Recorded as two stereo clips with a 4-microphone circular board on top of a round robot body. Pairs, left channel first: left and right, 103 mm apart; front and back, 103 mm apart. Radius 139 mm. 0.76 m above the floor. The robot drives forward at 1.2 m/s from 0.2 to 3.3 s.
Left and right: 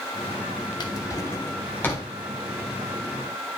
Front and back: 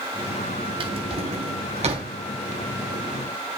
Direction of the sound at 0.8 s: 140° left.